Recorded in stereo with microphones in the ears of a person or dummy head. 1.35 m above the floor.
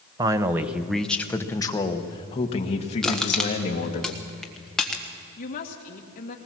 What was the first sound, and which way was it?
A man speaking, 25° right (ahead or behind).